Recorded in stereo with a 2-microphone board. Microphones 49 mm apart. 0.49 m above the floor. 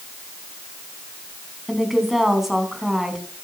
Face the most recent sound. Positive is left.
turn(degrees=-5)  # may be behind; listen again after turning